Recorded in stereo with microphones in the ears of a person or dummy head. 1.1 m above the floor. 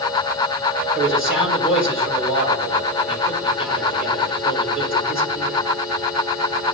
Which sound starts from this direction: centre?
A man speaking, at 0.9 s.